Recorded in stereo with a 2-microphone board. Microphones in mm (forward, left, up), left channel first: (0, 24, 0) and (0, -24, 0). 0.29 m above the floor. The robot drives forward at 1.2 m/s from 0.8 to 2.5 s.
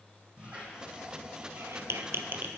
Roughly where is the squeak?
Right.